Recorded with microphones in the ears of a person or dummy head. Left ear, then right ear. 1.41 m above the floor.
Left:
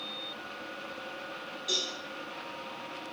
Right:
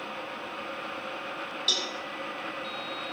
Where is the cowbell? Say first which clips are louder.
Right 4 dB; 55° right (ahead or behind), 1.3 m.